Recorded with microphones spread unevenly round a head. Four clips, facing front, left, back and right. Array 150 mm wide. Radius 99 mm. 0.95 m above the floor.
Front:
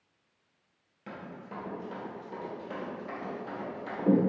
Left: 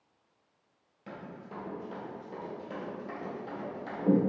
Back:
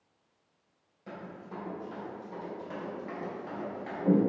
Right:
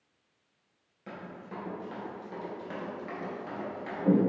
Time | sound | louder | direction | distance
1.1 | running footsteps | right 1 dB, even | 80° left | 1.1 m